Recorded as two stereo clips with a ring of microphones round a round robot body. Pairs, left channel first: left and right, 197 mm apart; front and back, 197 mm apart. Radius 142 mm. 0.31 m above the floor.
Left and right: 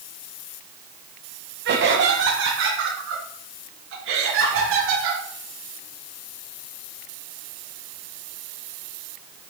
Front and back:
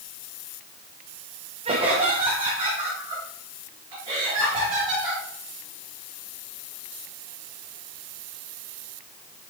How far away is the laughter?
About 1.7 m.